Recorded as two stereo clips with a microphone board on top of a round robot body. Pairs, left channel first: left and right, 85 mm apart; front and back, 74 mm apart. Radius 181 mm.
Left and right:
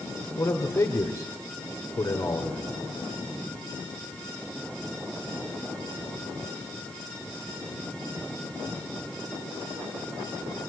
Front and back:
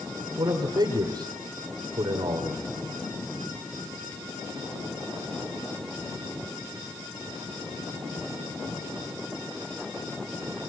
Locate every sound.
0.4 s a man speaking: 145° left, 3 m